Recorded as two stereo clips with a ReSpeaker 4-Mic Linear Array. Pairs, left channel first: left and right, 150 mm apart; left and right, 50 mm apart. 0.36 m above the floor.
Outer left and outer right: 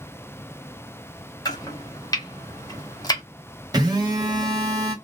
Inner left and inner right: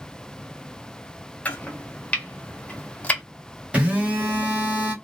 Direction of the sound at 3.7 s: 25° right (ahead or behind).